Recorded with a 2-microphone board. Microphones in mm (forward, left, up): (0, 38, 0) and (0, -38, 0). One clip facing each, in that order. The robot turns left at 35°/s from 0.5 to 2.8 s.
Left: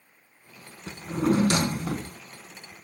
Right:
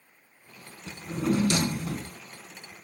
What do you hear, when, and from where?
0.9 s a drawer: 120° left, 0.8 m; by 2.2 s 75° left, 0.8 m